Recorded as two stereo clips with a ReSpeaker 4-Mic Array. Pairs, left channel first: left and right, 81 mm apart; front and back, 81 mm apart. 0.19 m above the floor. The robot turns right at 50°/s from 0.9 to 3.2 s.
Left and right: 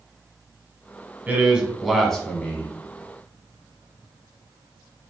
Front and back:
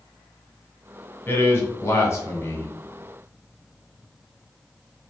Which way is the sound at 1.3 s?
35° right.